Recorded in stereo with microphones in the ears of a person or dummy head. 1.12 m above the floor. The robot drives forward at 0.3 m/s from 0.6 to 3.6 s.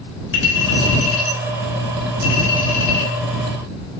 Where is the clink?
90° left, 5 m; by 3.1 s 80° left, 5 m.